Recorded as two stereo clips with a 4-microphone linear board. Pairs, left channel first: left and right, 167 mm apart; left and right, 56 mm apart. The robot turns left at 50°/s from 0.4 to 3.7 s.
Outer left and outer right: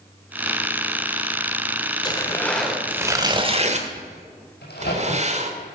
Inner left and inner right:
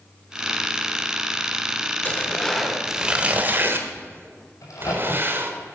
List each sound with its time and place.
2.0 s tearing paper: 30° left, 1.4 m; by 5.5 s 50° right, 1.4 m
4.6 s a crack: 85° left, 6 m